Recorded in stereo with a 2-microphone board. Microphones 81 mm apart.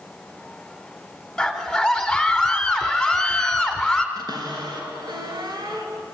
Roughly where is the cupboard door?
Right.